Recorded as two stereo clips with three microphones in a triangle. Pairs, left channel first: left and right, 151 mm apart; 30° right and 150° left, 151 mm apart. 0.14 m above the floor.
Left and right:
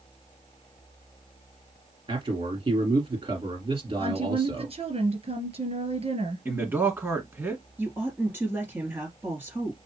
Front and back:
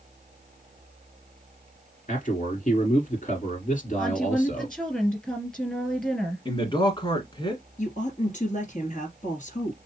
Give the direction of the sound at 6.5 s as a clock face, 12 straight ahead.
1 o'clock.